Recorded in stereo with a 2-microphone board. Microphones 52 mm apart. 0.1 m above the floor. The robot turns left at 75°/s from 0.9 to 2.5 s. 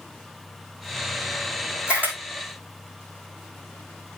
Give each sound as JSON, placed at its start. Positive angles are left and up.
{"t": 1.9, "sound": "a camera shutter", "side_deg": -20, "distance_m": 3.0}